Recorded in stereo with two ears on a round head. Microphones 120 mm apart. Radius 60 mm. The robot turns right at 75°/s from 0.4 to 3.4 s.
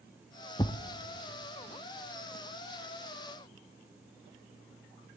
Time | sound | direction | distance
0.6 | a thud | 25° left (ahead or behind) | 0.5 m